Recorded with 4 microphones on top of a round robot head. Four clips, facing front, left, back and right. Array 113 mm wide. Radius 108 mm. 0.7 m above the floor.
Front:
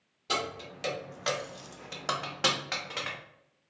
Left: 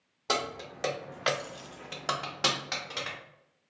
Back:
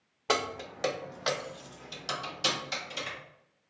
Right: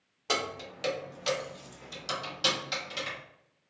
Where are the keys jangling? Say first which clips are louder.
Left 1 dB, back 3 dB; 160° left, 0.8 m; by 3.2 s 25° left, 1.2 m.